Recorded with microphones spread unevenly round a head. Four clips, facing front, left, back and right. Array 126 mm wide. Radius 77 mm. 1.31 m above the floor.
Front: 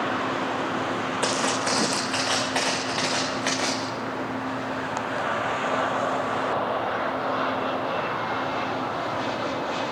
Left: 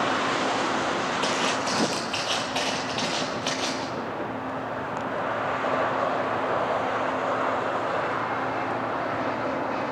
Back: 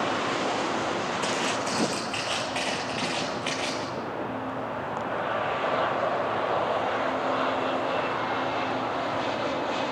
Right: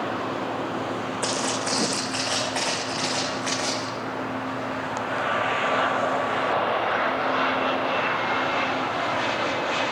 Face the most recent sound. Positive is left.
turn(degrees=10)